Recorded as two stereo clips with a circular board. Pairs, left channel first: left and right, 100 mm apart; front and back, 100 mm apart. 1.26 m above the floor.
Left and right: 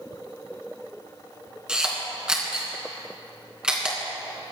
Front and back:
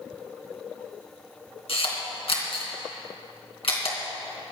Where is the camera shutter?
10° right, 3 m.